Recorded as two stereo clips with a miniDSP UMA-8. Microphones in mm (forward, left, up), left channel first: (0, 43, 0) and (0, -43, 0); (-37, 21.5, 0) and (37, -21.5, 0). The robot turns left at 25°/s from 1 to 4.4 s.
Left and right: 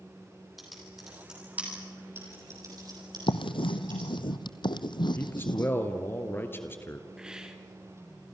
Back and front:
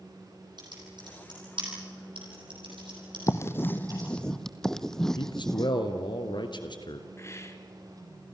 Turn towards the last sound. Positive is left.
turn(degrees=-170)